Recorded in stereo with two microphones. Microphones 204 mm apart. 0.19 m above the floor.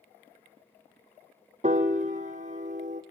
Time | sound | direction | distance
1.6 | a piano | 35° right (ahead or behind) | 1.7 m